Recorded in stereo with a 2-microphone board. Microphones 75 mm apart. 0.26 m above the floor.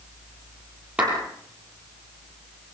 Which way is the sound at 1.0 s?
15° right (ahead or behind).